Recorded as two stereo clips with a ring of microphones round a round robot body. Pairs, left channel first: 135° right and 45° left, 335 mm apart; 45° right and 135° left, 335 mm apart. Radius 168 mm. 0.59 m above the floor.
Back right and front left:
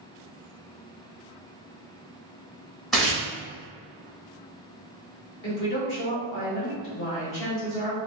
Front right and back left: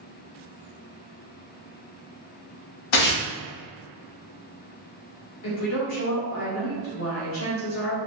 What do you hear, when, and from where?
2.9 s tearing paper: 45° right, 0.9 m
5.4 s a woman speaking: 90° right, 1.0 m